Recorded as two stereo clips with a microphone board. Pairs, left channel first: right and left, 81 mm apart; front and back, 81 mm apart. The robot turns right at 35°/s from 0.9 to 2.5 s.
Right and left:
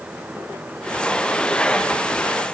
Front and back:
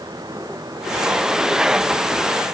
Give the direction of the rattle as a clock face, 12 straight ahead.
No rattle in this recording.